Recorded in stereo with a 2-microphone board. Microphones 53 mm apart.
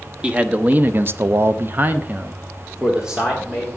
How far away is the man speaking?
About 1.1 m.